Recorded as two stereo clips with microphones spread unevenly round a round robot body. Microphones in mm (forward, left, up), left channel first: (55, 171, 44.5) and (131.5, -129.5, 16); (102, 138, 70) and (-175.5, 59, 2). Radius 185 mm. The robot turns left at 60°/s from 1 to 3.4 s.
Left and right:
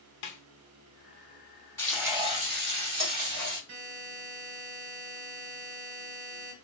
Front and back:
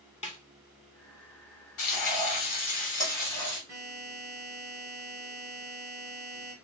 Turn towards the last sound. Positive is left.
turn(degrees=-90)